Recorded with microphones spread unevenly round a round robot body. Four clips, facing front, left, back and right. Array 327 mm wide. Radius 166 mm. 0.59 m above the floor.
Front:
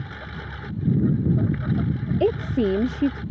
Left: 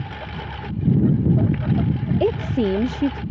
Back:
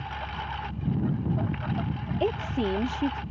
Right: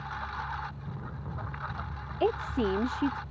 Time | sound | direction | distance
0.0 | a lawn mower | 70° left | ?
2.2 | a woman speaking | 50° left | ?